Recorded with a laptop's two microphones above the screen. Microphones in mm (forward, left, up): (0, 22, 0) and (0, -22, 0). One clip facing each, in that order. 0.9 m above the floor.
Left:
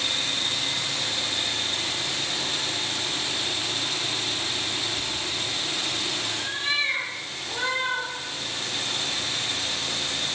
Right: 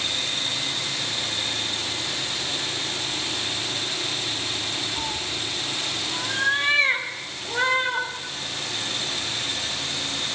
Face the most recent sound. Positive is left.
turn(degrees=-30)  # may be behind; listen again after turning